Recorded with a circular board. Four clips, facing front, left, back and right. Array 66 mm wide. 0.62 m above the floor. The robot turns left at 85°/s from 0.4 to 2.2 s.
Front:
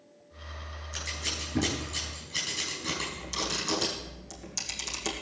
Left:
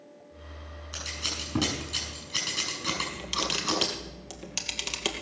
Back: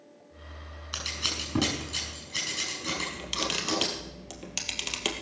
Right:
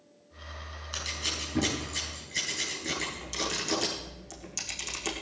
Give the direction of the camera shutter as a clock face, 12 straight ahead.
7 o'clock.